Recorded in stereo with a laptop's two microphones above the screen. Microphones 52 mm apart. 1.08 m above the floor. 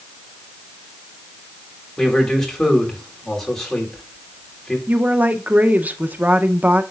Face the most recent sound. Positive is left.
turn(degrees=-30)  # may be behind; listen again after turning